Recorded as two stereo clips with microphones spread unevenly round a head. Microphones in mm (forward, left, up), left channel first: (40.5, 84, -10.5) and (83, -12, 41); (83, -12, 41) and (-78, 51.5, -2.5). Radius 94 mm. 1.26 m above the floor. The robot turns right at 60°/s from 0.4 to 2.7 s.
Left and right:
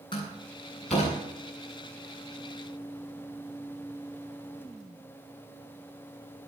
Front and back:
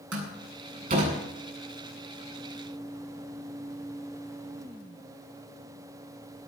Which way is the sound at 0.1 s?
175° left.